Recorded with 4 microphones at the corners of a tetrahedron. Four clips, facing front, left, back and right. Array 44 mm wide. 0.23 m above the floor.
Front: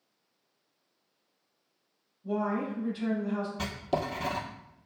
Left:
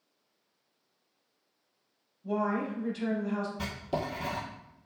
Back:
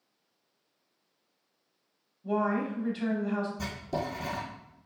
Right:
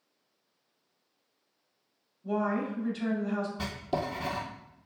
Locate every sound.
2.2 s a woman speaking: 170° right, 1.0 m
3.6 s writing: 10° right, 1.3 m